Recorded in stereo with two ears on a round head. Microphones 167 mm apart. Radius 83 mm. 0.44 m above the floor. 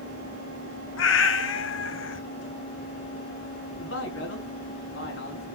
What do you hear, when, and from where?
1.0 s a cat meowing: 75° left (ahead or behind), 1.3 m
3.8 s a man speaking: 70° left (ahead or behind), 5 m